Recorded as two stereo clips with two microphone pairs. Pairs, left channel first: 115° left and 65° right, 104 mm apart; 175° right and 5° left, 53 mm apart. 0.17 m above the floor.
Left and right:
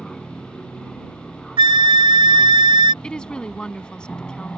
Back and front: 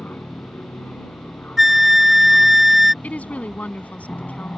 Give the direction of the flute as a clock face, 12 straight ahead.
3 o'clock.